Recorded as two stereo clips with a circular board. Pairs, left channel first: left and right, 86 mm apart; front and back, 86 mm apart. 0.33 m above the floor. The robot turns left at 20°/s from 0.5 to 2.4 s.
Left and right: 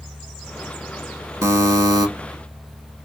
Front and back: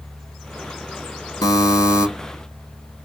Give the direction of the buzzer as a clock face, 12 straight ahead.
1 o'clock.